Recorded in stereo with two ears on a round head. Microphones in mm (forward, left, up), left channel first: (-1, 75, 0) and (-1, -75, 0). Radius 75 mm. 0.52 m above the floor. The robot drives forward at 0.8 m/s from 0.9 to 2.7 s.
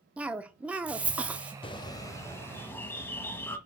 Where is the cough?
10° right (ahead or behind), 0.7 m.